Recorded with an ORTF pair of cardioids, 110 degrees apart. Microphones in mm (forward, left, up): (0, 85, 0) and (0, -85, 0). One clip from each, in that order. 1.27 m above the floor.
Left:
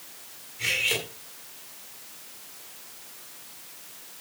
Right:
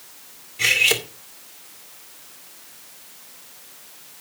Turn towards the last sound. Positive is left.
turn(degrees=-55)